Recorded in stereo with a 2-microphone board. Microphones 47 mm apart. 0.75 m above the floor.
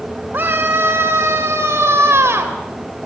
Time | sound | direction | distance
0.3 | a scream | 50° right (ahead or behind) | 2 m